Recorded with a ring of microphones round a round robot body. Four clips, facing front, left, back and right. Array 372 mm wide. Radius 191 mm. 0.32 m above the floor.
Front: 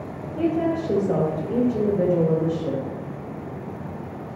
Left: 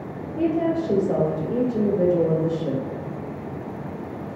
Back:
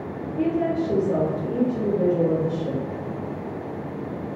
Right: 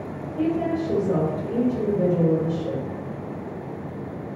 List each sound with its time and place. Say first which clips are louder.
0.4 s a woman speaking: left 2 dB, even; 55° left, 1.1 m